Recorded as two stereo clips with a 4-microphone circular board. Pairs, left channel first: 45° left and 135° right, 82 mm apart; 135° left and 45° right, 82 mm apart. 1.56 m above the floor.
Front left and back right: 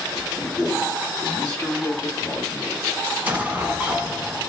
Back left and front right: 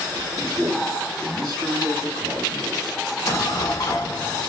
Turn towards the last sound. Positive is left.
turn(degrees=160)